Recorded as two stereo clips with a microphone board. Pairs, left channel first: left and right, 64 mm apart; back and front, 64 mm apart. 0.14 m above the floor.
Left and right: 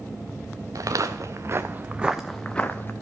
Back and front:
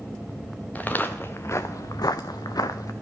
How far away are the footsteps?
About 1.3 m.